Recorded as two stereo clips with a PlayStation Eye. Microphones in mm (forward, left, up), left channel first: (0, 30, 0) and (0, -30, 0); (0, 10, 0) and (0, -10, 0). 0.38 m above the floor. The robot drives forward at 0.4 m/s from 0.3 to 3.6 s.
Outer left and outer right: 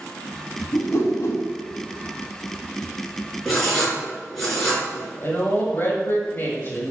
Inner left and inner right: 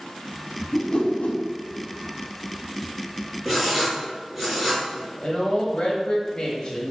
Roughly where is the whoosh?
Left.